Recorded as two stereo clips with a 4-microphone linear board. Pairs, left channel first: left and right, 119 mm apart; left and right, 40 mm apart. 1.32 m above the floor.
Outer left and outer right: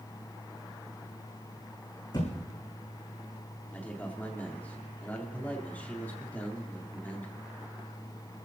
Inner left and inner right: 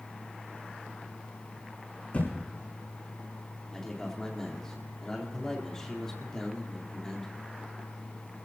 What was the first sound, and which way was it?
A thud, 35° left (ahead or behind).